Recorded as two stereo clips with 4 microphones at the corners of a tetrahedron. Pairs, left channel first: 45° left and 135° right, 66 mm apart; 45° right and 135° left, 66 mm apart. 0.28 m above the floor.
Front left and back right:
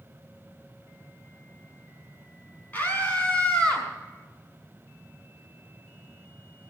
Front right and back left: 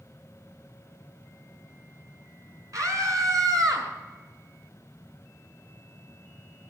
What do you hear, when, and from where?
2.7 s a scream: 105° left, 3.5 m; by 3.9 s 120° left, 3.5 m